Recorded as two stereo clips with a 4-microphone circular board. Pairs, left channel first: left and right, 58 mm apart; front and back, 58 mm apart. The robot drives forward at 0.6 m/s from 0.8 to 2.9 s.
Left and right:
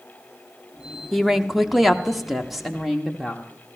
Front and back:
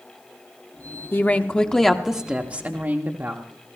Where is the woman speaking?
5° right, 0.9 m; by 3.4 s 175° right, 0.9 m.